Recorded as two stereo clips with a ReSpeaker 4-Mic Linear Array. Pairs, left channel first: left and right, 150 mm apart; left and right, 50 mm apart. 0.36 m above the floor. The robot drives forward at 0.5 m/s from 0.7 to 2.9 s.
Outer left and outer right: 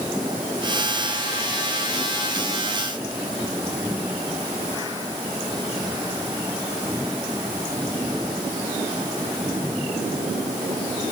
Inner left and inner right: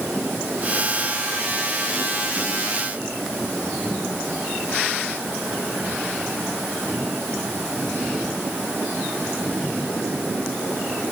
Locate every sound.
Only background noise.